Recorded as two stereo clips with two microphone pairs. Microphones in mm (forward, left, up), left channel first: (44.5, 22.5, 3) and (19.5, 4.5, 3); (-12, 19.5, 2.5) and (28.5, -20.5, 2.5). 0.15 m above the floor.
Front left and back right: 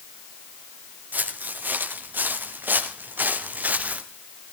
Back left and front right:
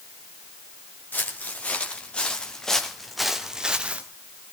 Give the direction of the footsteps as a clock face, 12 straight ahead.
5 o'clock.